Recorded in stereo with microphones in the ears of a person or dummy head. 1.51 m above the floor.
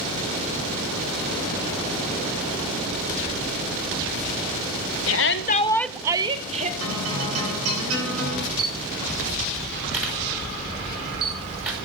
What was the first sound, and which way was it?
A shout, 75° left (ahead or behind).